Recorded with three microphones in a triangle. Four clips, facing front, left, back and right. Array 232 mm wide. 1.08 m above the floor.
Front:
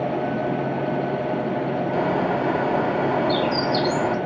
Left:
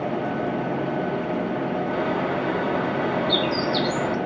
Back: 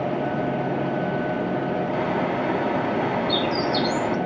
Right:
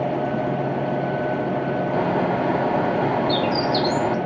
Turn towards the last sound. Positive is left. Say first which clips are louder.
# right 5 dB, front 2 dB
turn(degrees=-55)